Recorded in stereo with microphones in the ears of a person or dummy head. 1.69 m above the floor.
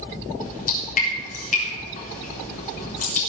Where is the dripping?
45° left (ahead or behind), 4 m.